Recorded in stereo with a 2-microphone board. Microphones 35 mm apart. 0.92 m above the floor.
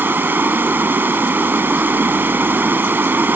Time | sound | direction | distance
0.0 | running water | 85° right | ?